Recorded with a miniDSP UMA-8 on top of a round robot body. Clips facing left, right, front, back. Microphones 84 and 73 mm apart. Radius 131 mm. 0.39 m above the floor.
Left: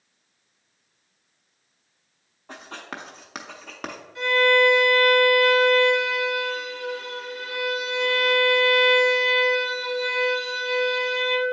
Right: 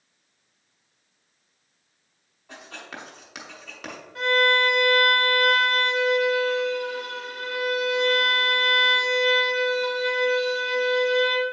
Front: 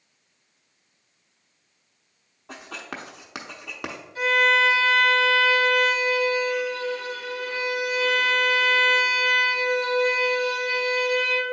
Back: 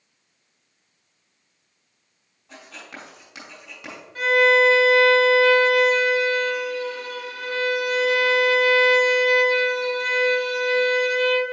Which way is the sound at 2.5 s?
40° left.